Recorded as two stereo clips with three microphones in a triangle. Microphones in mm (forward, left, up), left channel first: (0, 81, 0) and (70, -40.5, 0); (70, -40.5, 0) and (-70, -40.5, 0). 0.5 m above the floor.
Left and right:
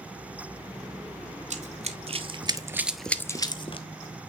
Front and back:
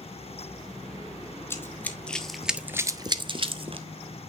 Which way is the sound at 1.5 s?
70° right.